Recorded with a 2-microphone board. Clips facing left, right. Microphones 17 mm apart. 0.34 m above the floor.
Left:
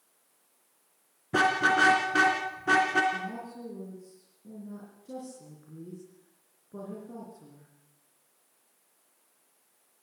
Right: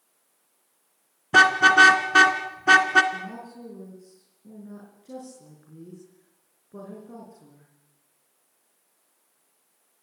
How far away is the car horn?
About 2 m.